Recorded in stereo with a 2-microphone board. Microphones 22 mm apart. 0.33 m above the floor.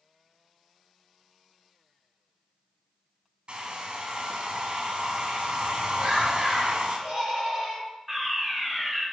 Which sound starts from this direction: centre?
A fire alarm, at 8.1 s.